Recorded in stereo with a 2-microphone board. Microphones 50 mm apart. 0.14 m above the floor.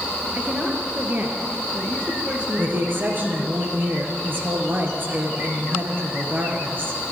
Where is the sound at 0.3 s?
30° right (ahead or behind), 3 m.